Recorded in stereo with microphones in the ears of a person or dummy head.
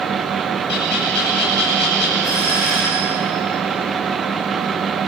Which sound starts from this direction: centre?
A doorbell, at 2.2 s.